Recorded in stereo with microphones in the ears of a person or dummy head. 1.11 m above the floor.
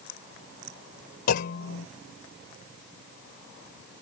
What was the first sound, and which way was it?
A clunk, 60° left (ahead or behind).